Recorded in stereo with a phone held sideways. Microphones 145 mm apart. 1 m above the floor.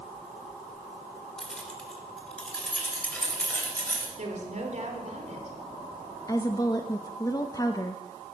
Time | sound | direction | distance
1.4 | keys jangling | 5° left (ahead or behind) | 2.5 m
4.2 | a woman speaking | 55° right (ahead or behind) | 3.5 m
6.3 | a woman speaking | 25° left (ahead or behind) | 0.9 m